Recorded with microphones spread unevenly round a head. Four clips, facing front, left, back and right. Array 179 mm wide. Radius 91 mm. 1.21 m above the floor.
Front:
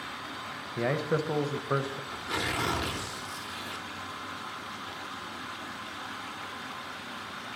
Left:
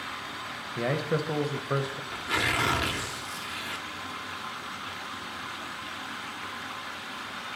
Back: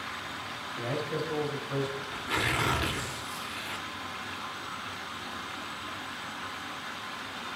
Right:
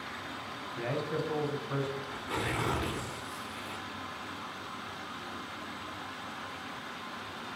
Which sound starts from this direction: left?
Tearing paper, at 2.1 s.